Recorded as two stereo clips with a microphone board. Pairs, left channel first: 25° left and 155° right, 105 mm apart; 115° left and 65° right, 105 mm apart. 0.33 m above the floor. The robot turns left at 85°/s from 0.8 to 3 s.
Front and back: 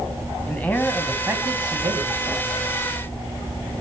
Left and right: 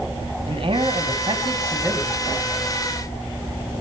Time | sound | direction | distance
0.5 | a man speaking | 50° right | 2.5 m